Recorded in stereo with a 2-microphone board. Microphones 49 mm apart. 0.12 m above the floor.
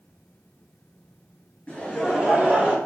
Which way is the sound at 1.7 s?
15° left (ahead or behind).